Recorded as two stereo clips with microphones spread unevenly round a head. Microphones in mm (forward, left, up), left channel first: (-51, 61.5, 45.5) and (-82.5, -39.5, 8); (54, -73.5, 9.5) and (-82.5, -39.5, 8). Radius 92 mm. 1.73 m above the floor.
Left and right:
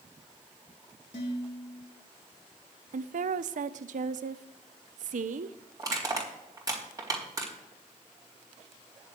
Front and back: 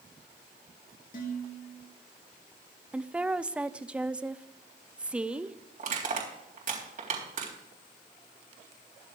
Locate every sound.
1.1 s dishes clattering: 30° left, 3 m
2.9 s a woman speaking: 110° right, 0.6 m
5.8 s crushing: 170° right, 4 m